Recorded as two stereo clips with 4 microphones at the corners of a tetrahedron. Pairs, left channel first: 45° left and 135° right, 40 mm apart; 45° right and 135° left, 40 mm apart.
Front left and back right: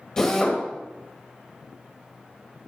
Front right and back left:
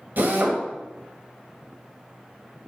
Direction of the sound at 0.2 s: 115° left.